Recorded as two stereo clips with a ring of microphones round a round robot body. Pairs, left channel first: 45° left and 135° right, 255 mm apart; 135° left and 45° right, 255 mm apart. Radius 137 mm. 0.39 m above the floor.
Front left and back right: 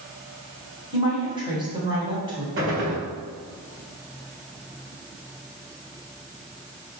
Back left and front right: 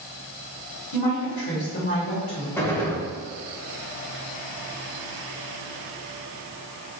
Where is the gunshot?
145° right, 1.3 m.